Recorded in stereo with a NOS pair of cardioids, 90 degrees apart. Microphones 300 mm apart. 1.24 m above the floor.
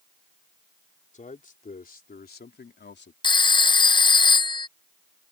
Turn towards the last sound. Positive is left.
turn(degrees=15)